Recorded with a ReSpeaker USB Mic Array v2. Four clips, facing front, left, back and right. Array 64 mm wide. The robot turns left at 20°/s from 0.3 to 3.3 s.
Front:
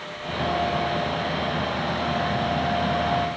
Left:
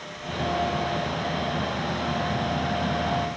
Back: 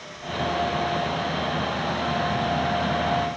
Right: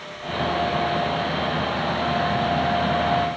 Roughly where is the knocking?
No knocking in this recording.